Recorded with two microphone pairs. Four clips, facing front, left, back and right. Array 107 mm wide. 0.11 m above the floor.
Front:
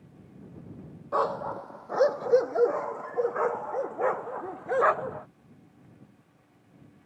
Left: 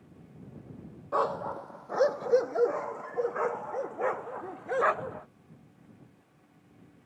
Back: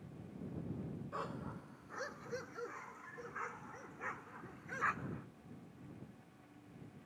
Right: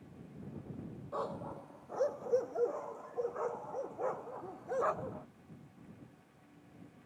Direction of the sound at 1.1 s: 45° left.